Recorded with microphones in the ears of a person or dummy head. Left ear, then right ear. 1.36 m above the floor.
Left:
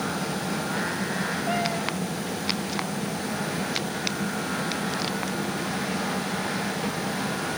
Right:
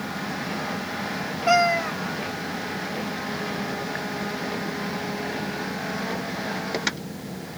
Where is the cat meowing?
60° right (ahead or behind), 1.0 m.